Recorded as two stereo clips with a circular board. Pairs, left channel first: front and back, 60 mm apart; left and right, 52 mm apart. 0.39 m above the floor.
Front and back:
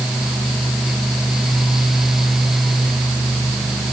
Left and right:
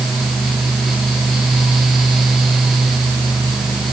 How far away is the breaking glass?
No breaking glass in this recording.